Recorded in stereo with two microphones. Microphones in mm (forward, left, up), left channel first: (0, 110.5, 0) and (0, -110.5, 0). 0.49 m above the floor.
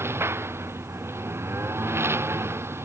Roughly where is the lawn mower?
Centre.